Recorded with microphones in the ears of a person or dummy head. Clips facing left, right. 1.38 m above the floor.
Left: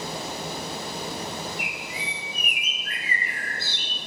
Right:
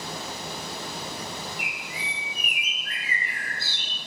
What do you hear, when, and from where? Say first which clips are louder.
1.6 s a bird: left 3 dB; 70° left (ahead or behind), 4 m